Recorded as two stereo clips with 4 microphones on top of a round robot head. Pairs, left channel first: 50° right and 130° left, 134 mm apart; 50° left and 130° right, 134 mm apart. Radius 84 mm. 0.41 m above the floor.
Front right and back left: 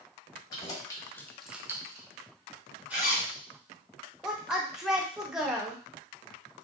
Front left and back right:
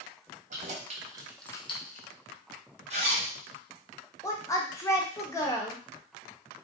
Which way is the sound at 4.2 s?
45° left.